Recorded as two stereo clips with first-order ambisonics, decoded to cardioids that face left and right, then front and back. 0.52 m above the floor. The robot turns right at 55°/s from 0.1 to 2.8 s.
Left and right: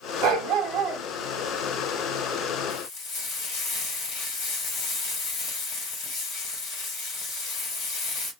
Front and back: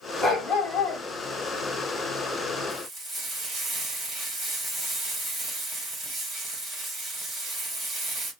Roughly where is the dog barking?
Right.